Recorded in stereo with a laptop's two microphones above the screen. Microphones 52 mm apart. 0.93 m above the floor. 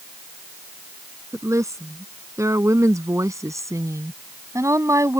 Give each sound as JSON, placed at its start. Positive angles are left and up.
{"t": 1.3, "sound": "a woman speaking", "side_deg": -80}